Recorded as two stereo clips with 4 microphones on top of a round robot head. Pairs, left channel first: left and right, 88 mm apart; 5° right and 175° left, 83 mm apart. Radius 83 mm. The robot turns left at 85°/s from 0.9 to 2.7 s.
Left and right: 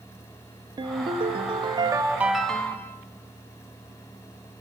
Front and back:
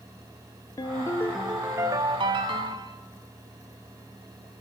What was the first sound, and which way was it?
A ringtone, 55° right.